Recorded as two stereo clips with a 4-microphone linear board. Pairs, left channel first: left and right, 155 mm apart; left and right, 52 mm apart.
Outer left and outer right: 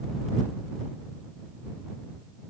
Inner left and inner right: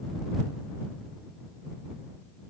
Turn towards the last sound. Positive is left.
No sound to turn to.